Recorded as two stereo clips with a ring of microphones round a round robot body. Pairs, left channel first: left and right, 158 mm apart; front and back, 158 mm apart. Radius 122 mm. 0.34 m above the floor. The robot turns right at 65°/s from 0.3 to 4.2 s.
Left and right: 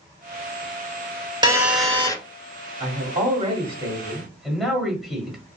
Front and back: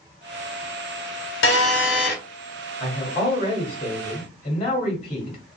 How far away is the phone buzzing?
About 1.0 m.